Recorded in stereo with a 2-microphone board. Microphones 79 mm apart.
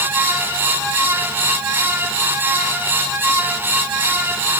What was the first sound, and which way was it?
Only background noise.